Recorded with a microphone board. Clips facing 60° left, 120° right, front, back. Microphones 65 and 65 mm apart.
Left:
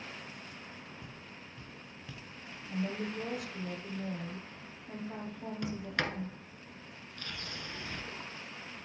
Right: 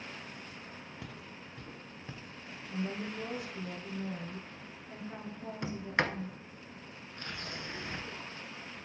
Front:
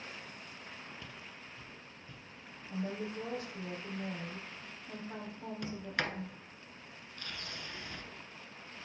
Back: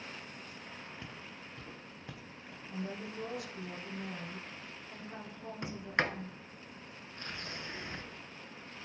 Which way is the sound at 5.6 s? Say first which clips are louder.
Right 3 dB, back 4 dB; 155° right.